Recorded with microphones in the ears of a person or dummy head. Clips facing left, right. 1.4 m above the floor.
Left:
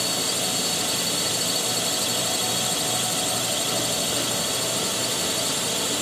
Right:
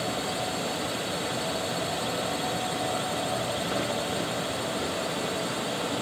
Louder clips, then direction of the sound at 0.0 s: Even; 55° left (ahead or behind).